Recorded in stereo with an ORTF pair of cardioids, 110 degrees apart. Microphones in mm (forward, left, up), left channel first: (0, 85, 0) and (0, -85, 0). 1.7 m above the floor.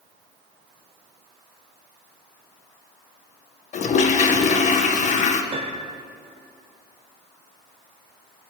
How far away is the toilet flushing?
About 1.6 m.